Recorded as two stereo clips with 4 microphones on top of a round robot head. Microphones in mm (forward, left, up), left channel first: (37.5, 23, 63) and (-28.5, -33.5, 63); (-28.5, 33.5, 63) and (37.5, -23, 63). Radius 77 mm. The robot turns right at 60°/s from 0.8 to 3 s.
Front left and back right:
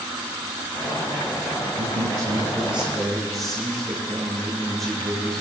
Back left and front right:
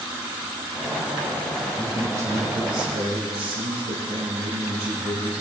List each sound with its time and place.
1.8 s a man speaking: 120° right, 10 m; by 5.4 s 45° right, 10 m